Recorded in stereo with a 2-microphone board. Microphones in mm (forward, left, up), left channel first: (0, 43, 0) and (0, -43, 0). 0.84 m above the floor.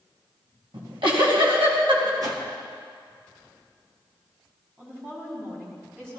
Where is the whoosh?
45° right (ahead or behind), 2 m.